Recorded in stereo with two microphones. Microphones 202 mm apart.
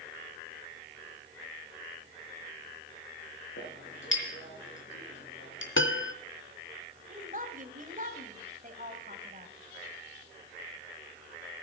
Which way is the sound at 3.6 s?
70° left (ahead or behind).